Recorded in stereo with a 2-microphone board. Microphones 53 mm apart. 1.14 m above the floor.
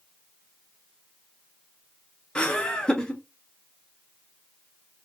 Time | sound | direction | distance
2.4 | laughter | 15° left (ahead or behind) | 1.4 m